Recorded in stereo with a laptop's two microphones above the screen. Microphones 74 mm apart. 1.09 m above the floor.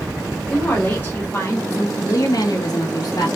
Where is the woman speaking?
20° left (ahead or behind), 1.5 m; by 3.3 s 65° left (ahead or behind), 0.9 m.